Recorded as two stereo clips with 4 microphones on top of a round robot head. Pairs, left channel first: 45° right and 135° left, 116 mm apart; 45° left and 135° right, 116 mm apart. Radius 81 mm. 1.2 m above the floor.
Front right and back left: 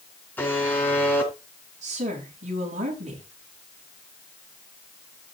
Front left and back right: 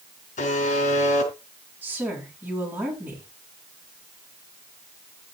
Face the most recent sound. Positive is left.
turn(degrees=150)